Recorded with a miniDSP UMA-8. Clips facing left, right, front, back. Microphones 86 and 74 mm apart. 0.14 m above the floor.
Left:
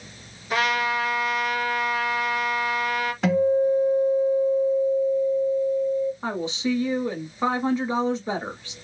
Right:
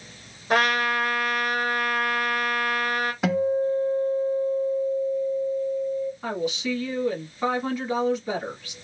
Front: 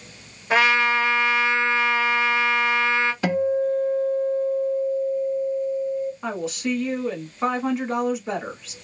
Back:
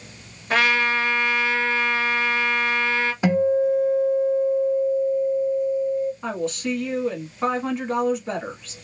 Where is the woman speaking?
85° left, 1.2 m.